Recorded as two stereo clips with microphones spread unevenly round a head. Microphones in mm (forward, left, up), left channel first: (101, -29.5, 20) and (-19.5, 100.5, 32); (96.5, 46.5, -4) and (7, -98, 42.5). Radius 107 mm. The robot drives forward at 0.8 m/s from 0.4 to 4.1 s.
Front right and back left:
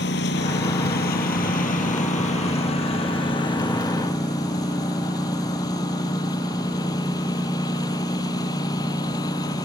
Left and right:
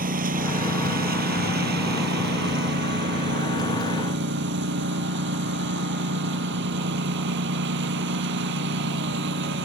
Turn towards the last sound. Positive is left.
turn(degrees=-120)